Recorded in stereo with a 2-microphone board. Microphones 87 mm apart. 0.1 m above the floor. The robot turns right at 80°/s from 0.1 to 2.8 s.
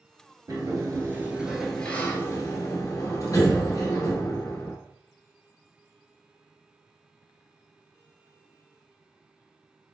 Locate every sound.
0.5 s a sliding door: 90° right, 1.0 m; by 4.8 s 95° left, 1.0 m